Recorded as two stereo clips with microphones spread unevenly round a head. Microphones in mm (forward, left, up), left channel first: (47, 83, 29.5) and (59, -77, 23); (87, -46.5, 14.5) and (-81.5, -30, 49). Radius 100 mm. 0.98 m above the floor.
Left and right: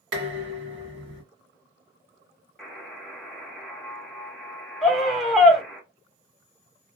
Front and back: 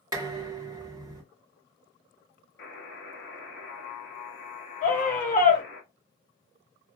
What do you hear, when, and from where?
0.1 s dishes clattering: 120° right, 1.5 m
2.6 s a buzzer: 10° left, 1.2 m
4.8 s a scream: 5° left, 1.4 m